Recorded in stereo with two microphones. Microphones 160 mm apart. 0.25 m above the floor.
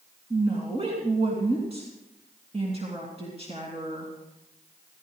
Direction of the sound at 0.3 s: 40° right (ahead or behind).